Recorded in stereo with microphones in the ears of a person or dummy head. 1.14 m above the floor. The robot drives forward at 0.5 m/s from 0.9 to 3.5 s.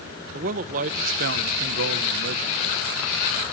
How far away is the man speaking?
About 0.8 m.